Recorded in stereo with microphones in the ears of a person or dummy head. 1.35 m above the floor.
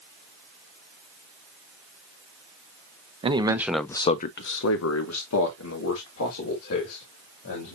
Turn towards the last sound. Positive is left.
turn(degrees=80)